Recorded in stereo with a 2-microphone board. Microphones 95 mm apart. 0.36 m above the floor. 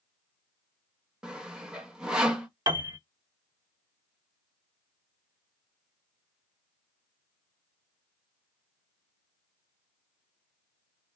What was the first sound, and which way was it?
Sawing, 10° right (ahead or behind).